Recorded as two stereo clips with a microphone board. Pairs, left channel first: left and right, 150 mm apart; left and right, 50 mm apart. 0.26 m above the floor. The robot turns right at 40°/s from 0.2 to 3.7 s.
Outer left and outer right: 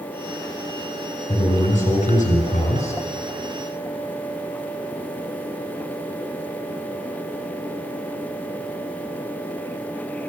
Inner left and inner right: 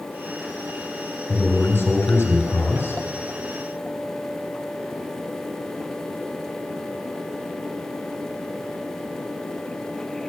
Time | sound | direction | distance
1.3 | a man speaking | 35° left | 2.5 m